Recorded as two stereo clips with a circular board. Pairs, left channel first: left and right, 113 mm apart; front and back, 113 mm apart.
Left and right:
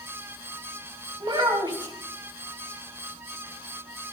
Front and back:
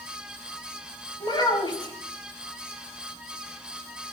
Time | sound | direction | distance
1.2 | a child speaking | 45° right | 3 m